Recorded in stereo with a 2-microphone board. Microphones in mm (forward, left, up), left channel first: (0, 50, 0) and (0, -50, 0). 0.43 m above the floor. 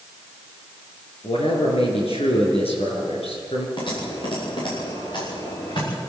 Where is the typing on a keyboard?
55° left (ahead or behind), 7.5 m.